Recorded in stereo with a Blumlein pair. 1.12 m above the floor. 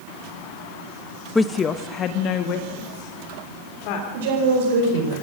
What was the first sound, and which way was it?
A woman speaking, 5° left.